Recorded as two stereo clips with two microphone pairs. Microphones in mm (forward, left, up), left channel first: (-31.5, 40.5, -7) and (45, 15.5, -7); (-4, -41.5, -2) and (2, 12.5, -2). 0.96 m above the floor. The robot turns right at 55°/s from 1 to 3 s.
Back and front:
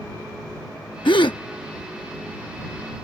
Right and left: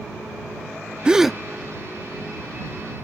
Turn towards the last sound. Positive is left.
turn(degrees=-95)